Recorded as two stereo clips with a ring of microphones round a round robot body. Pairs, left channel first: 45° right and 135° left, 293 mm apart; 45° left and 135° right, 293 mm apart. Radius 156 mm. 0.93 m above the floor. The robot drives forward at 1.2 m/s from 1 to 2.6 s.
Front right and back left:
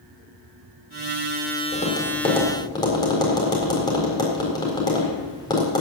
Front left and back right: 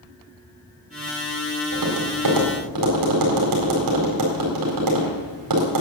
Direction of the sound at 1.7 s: 110° right.